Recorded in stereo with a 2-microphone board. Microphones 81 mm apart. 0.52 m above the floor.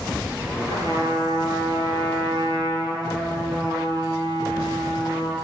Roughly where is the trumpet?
Right.